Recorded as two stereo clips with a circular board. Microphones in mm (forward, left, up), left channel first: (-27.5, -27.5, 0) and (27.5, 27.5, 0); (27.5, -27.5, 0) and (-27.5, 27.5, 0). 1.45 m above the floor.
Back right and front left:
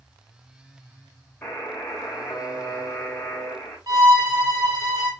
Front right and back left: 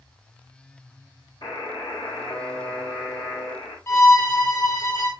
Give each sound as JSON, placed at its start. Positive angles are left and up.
{"t": 1.4, "sound": "a buzzer", "azimuth_deg": -65, "distance_m": 5.5}
{"t": 3.9, "sound": "a violin", "azimuth_deg": 10, "distance_m": 3.0}